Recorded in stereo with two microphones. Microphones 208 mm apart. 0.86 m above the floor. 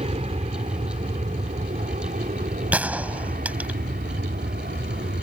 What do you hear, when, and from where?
0.0 s an aircraft: 30° right (ahead or behind); by 5.2 s 50° right (ahead or behind)
2.7 s a gunshot: 5° right (ahead or behind)